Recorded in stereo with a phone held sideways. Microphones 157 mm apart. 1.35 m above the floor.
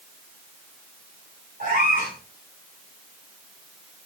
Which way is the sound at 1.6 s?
65° right (ahead or behind).